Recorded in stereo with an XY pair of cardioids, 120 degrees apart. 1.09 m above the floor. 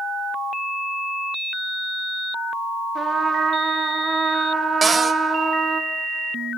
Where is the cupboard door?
30° right, 0.6 m.